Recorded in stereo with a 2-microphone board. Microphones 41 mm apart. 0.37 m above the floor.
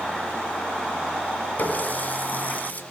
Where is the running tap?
45° left (ahead or behind), 2 m.